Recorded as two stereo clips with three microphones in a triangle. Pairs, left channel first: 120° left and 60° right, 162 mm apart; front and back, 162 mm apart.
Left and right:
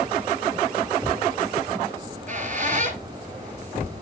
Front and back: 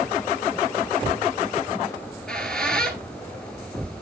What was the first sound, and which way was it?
A squeak, 85° right.